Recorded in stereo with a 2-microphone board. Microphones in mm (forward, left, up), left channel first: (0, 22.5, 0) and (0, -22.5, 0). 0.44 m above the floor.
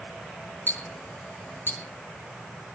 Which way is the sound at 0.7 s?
50° left (ahead or behind).